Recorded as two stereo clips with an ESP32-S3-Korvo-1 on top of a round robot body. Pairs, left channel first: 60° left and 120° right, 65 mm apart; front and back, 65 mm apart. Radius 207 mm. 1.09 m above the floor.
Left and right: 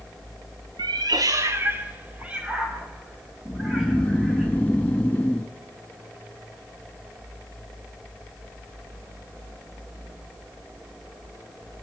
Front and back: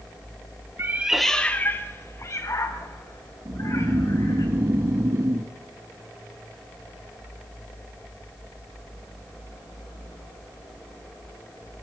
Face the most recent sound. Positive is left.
turn(degrees=130)